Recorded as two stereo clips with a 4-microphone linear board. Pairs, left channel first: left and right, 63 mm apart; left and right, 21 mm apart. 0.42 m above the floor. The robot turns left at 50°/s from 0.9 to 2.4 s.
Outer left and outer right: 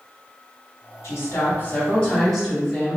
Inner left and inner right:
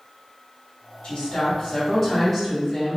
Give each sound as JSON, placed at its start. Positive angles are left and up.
{"t": 1.0, "sound": "a woman speaking", "azimuth_deg": 70, "distance_m": 1.8}